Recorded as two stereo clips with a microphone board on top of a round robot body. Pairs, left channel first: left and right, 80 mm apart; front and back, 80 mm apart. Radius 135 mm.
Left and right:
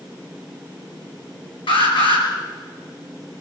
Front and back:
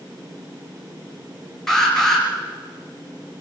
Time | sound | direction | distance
1.7 | an alarm | 85° left | 6 m